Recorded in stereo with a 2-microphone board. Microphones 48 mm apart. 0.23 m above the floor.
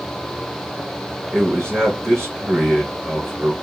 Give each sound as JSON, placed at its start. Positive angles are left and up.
{"t": 1.3, "sound": "a man speaking", "side_deg": -55, "distance_m": 2.5}